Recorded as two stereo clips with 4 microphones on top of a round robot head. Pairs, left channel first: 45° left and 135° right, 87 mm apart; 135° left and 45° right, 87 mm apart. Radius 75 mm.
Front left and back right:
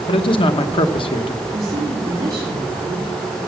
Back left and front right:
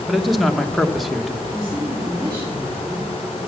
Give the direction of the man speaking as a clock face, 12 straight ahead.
10 o'clock.